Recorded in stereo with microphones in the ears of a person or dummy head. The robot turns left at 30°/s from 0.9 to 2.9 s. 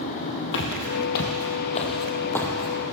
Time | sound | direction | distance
0.5 | footsteps | 60° left (ahead or behind) | 3 m